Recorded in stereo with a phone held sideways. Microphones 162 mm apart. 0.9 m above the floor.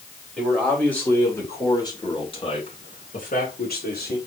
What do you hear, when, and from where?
0.4 s a man speaking: 5° left (ahead or behind), 3.5 m; by 4.2 s 80° left, 2 m